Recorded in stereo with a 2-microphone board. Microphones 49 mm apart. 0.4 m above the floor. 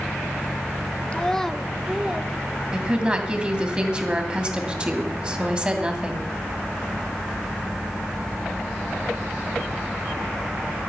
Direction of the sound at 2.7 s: 20° right (ahead or behind).